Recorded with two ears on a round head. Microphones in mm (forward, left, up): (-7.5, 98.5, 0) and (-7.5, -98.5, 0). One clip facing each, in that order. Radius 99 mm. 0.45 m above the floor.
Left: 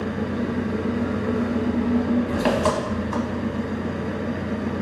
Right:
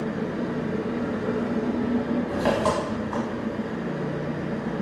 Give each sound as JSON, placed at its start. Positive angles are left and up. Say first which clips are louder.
{"t": 0.0, "sound": "an engine running", "louder": "left 2 dB", "side_deg": 40, "distance_m": 0.9}